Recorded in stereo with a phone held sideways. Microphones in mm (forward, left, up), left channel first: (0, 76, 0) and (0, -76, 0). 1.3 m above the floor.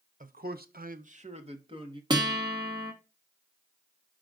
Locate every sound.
0.2 s a man speaking: 60° right (ahead or behind), 0.8 m; by 2.0 s 30° right (ahead or behind), 1.6 m
2.1 s a guitar: 30° right (ahead or behind), 1.4 m